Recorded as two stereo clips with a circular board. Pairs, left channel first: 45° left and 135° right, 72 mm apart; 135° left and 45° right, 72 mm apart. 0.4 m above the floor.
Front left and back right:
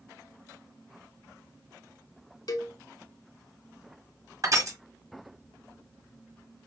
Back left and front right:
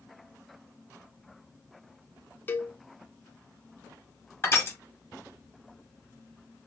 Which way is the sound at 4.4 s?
170° right.